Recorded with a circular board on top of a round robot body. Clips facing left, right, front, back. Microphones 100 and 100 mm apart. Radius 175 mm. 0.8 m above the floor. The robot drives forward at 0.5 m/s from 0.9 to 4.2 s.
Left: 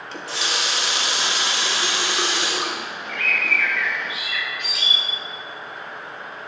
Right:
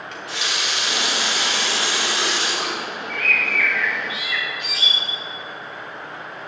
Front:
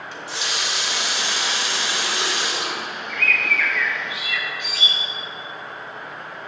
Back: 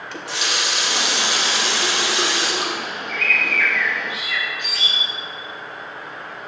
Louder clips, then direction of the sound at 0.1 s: Left 2 dB, back 4 dB; 150° left.